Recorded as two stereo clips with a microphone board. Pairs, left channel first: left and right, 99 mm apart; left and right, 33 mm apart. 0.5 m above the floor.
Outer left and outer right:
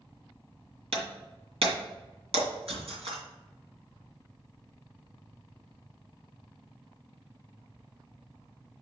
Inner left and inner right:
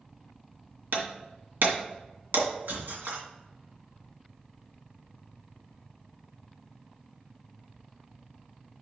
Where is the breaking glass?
85° right, 2 m.